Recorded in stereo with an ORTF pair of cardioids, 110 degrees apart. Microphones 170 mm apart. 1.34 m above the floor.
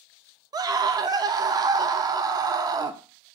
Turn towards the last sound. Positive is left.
turn(degrees=-20)